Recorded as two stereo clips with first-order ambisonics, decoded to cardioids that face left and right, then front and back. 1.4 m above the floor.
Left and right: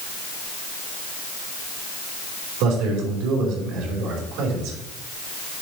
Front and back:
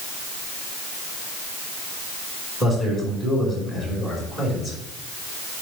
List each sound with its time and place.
2.6 s a man speaking: 105° right, 5 m